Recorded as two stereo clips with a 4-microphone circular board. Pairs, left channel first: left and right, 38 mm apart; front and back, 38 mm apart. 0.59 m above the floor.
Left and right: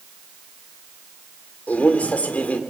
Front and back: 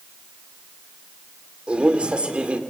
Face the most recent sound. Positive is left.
turn(degrees=125)